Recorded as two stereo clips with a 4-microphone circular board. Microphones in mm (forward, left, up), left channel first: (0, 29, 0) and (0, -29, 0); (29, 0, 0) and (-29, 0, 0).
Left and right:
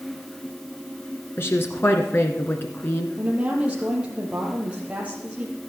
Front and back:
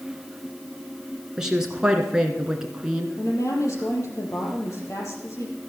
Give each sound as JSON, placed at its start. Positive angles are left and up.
{"t": 1.4, "sound": "a woman speaking", "azimuth_deg": 105, "distance_m": 1.5}
{"t": 3.2, "sound": "a woman speaking", "azimuth_deg": -20, "distance_m": 5.0}